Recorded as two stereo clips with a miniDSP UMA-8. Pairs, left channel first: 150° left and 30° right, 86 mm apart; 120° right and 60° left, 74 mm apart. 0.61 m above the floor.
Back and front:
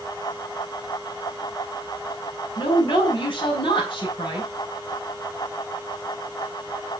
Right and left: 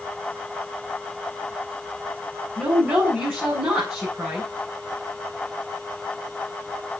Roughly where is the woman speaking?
Behind left.